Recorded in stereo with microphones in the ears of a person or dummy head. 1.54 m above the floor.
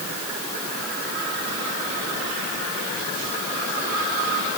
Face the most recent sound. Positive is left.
No sound to turn to.